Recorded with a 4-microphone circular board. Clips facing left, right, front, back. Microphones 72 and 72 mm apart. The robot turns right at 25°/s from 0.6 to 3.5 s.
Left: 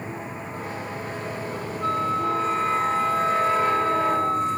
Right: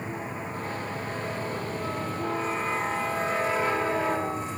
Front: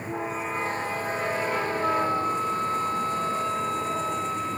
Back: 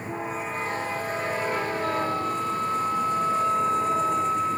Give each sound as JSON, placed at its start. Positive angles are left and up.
{"t": 1.8, "sound": "a flute", "azimuth_deg": 70}